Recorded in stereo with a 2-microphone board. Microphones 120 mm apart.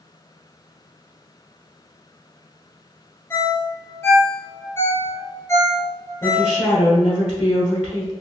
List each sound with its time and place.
3.3 s a ringtone: 20° left (ahead or behind), 0.8 m
6.2 s a woman speaking: 30° left (ahead or behind), 1.5 m